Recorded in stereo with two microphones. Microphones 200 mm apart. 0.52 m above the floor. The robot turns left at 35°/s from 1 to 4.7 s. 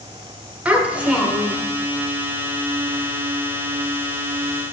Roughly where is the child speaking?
Centre.